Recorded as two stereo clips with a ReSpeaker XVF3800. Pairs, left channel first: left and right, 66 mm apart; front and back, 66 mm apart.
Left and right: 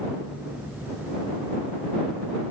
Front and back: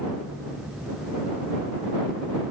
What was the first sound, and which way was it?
Only background noise.